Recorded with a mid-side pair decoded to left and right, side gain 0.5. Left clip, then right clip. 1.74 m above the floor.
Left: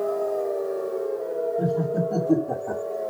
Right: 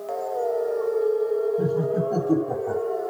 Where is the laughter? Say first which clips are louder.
Right 1 dB; 15° right, 8.5 m.